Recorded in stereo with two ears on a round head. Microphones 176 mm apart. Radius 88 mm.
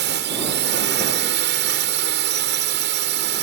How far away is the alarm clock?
I don't hear an alarm clock.